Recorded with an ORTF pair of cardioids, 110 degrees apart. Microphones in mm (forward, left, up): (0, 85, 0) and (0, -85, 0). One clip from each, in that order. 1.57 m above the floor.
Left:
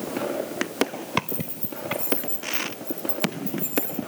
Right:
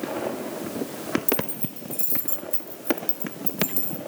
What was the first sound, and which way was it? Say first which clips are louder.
Keys jangling: right 6 dB; 55° right.